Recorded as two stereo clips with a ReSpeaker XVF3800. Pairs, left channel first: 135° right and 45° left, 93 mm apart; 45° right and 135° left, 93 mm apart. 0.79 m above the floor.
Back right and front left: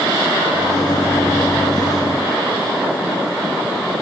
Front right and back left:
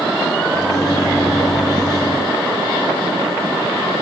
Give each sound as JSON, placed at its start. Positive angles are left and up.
{"t": 0.5, "sound": "a microwave", "azimuth_deg": -90, "distance_m": 1.3}